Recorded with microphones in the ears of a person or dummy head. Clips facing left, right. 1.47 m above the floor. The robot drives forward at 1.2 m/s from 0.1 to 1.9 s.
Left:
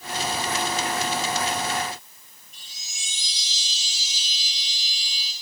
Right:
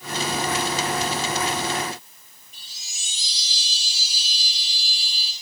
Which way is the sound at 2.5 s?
30° right (ahead or behind).